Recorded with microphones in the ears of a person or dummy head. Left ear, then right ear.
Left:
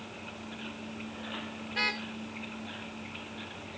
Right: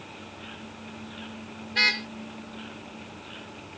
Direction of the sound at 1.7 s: 30° right (ahead or behind).